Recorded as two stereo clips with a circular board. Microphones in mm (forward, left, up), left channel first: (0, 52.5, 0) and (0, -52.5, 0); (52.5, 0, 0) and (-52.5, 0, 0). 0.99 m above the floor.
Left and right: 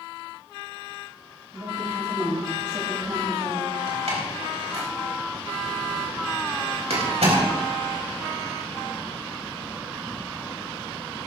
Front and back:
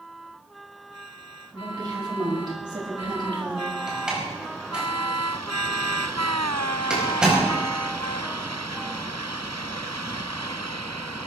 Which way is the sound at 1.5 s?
130° right.